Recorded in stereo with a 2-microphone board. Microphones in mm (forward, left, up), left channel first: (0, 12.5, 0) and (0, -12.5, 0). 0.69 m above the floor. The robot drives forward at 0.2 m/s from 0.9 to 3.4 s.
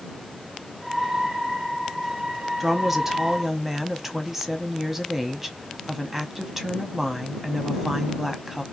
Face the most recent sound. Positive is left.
turn(degrees=-15)  # may be behind; listen again after turning